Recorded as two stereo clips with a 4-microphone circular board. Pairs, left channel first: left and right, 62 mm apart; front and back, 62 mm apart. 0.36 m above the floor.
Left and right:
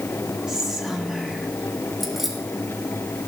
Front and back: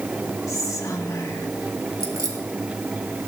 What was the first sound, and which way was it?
Whispering, 10° right.